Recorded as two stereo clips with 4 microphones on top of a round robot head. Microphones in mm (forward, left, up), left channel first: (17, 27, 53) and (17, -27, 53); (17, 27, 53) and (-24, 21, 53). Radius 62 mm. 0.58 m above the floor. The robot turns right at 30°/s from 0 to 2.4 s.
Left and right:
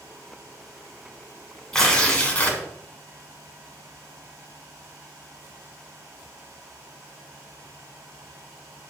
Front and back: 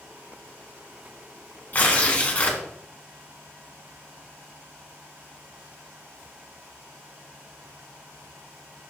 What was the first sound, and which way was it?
Tearing paper, 20° left.